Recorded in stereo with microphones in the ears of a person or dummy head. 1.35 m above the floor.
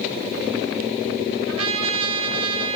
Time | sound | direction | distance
1.5 | a trumpet | 30° right (ahead or behind) | 1.1 m